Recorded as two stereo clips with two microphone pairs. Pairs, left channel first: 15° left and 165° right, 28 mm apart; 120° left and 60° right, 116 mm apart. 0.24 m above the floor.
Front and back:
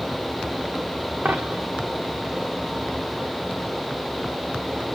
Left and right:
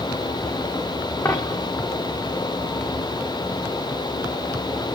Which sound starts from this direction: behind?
A dropped coin, at 1.2 s.